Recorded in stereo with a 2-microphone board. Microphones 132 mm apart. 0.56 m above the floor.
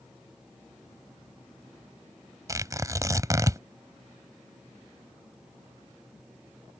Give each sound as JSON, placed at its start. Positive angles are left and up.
{"t": 2.5, "sound": "tearing paper", "side_deg": -25}